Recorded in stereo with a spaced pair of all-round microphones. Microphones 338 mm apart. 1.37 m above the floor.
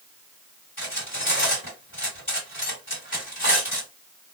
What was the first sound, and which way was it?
Cutlery clinking, 35° left (ahead or behind).